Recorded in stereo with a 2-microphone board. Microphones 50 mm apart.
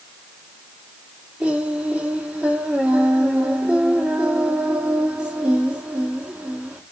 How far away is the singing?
About 1.5 m.